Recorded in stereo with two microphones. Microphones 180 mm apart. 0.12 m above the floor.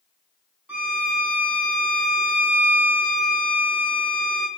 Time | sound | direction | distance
0.7 | a violin | 10° right (ahead or behind) | 0.5 m